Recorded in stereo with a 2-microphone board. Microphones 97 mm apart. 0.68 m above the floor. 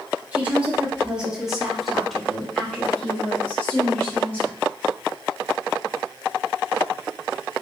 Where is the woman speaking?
15° right (ahead or behind), 1.4 m; by 4.6 s 20° left (ahead or behind), 2 m.